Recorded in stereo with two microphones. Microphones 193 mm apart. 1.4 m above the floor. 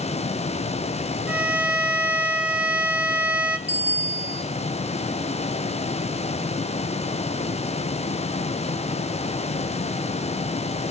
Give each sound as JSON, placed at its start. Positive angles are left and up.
{"t": 1.3, "sound": "a violin", "side_deg": -5, "distance_m": 1.3}
{"t": 3.7, "sound": "a bicycle bell", "side_deg": -65, "distance_m": 2.5}